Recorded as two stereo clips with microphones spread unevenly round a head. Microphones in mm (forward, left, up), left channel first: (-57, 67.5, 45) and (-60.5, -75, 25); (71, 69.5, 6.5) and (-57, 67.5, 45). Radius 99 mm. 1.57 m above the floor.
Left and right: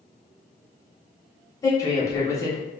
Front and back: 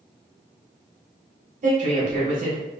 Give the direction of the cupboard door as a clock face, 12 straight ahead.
I don't hear a cupboard door.